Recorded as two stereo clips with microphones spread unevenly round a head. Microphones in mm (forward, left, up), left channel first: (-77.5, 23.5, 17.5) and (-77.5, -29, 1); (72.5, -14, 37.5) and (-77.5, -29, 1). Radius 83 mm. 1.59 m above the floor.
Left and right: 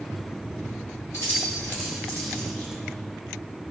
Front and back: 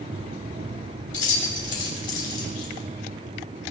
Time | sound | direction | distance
1.1 | keys jangling | 30° left | 4 m